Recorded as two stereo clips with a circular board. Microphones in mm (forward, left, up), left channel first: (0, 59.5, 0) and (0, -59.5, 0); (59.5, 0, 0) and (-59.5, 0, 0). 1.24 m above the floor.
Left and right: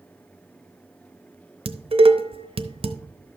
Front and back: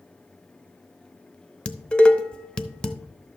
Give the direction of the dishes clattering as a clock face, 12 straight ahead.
3 o'clock.